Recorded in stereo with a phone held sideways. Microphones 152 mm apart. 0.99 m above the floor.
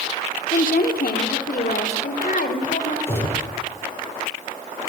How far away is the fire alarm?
No fire alarm in this recording.